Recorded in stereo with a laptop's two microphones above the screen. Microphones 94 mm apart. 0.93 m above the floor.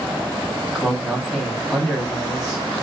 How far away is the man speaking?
About 1.2 m.